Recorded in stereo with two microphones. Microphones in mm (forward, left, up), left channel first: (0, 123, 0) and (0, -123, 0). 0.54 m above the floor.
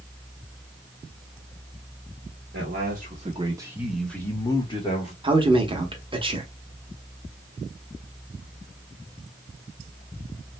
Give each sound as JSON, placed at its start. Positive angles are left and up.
{"t": 2.5, "sound": "a man speaking", "side_deg": -45, "distance_m": 0.9}
{"t": 5.2, "sound": "a man speaking", "side_deg": -20, "distance_m": 0.7}